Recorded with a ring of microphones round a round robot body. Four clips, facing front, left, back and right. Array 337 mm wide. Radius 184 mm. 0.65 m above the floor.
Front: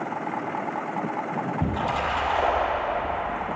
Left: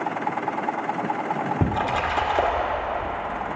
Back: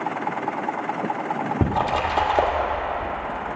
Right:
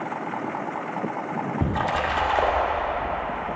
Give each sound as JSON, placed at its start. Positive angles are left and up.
{"t": 1.6, "sound": "a splash", "azimuth_deg": 155, "distance_m": 1.8}